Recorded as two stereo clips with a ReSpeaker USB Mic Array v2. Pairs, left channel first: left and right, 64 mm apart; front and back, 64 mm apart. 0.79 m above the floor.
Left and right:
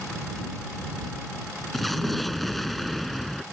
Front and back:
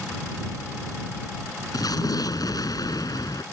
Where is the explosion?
Straight ahead.